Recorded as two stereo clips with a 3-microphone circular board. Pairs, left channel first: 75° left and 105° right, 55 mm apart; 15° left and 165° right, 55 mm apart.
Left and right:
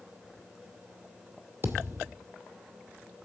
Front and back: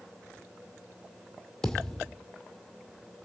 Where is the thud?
60° right, 1.8 m.